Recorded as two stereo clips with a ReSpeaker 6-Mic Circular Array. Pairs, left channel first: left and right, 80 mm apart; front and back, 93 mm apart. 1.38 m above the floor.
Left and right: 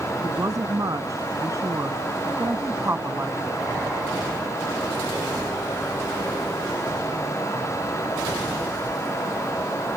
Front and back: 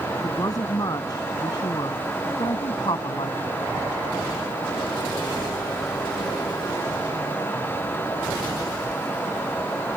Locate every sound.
0.2 s a woman speaking: 50° right; by 3.6 s 25° right